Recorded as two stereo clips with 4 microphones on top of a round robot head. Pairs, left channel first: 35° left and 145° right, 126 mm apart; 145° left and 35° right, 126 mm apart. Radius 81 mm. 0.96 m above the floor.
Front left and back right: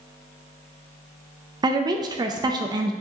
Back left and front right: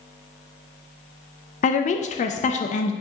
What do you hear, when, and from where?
1.6 s a woman speaking: 160° left, 0.6 m